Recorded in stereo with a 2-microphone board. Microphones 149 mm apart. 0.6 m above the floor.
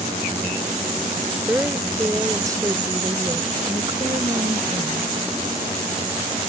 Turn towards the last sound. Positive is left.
turn(degrees=-40)  # may be behind; listen again after turning